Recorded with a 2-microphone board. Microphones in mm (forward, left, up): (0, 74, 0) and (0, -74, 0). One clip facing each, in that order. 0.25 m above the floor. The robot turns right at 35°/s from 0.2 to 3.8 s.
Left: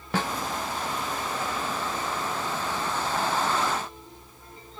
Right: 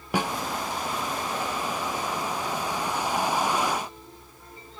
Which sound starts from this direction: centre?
A snare drum, at 0.1 s.